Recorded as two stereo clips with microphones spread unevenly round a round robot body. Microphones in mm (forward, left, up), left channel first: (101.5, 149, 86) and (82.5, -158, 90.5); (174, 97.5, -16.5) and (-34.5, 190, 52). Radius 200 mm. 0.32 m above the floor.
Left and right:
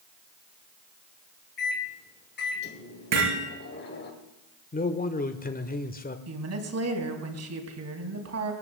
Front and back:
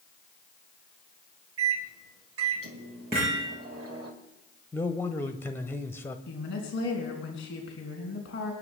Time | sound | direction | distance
1.6 | a microwave | 135° left | 2.0 m
3.1 | hammering | 120° right | 6.5 m
4.7 | a man speaking | 35° left | 1.1 m
6.3 | a woman speaking | 60° right | 4 m